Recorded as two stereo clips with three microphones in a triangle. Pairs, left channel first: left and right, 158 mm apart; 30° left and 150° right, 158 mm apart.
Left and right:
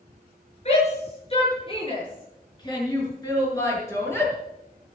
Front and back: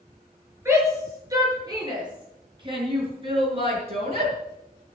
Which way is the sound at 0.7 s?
140° left.